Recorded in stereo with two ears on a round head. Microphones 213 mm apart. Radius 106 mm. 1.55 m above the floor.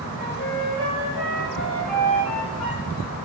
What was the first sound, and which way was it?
A flute, 5° left (ahead or behind).